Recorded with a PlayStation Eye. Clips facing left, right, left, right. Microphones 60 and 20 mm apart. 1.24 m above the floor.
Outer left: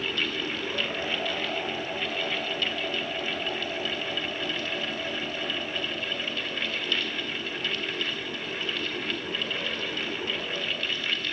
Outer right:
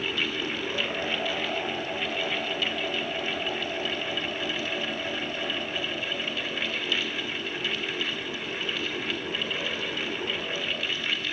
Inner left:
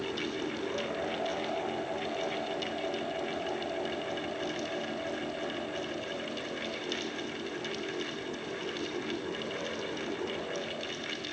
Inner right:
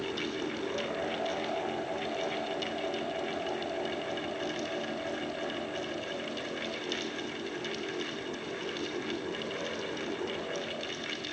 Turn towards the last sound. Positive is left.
No sound to turn to.